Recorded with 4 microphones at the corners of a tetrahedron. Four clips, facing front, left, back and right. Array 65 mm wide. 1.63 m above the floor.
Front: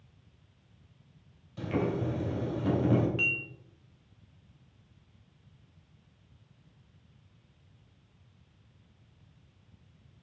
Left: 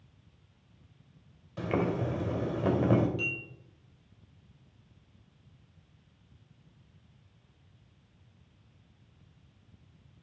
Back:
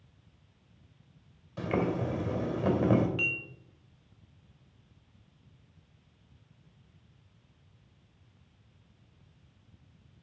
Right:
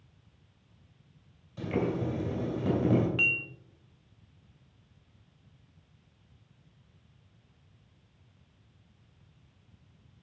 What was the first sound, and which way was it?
Boiling, 125° left.